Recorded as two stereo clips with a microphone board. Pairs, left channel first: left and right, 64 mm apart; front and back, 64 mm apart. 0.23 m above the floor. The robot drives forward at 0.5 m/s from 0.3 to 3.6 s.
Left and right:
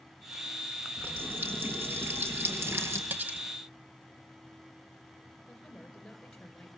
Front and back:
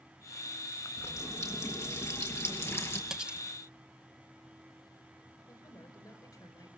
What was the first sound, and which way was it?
A running tap, 35° right.